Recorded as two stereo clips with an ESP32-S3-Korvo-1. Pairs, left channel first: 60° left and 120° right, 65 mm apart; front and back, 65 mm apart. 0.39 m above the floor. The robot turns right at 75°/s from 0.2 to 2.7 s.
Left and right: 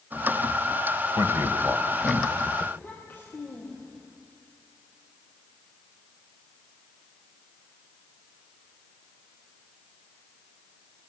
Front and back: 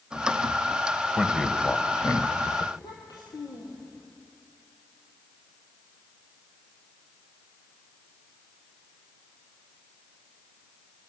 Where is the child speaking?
5° right, 6.5 m.